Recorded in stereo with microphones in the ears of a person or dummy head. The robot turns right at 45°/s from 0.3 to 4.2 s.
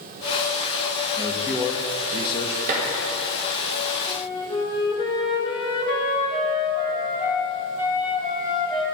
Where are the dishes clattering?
50° right (ahead or behind), 1.9 m; by 2.9 s 45° right (ahead or behind), 1.9 m.